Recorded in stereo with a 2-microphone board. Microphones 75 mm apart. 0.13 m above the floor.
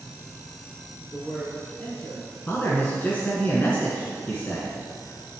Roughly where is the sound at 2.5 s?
Left.